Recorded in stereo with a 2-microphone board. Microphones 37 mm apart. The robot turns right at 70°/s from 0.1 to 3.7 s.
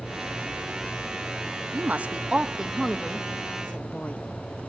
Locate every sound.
1.7 s a woman speaking: 45° right (ahead or behind), 1.2 m; by 4.2 s 40° left (ahead or behind), 1.2 m